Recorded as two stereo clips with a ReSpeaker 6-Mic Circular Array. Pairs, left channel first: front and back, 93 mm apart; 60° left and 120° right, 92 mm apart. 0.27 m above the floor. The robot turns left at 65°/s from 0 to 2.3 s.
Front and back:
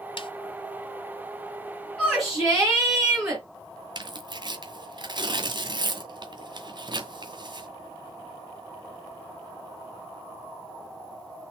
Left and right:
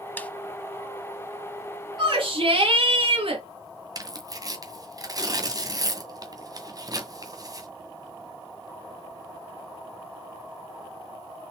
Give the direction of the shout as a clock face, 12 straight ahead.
3 o'clock.